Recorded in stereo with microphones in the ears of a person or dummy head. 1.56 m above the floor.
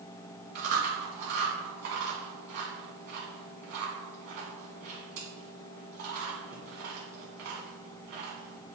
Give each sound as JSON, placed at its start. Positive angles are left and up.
{"t": 0.6, "sound": "chewing", "side_deg": -55, "distance_m": 2.5}